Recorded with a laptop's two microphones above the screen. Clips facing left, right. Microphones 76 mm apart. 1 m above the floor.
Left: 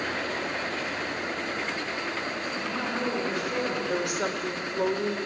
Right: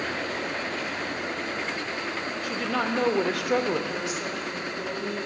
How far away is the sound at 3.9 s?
About 3.5 m.